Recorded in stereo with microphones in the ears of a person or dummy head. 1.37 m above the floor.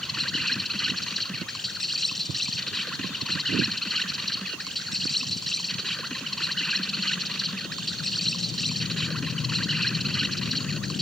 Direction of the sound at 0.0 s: Centre (ahead or behind).